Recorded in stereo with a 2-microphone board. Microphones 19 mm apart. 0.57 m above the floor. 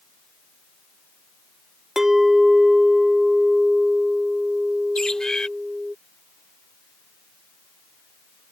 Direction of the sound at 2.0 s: 25° right (ahead or behind).